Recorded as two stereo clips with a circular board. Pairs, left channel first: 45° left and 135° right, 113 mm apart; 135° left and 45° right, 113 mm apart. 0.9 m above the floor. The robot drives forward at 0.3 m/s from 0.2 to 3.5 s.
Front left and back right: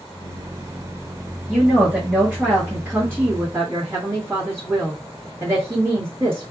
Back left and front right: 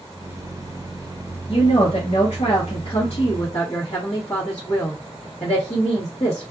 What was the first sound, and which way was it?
A woman speaking, 130° left.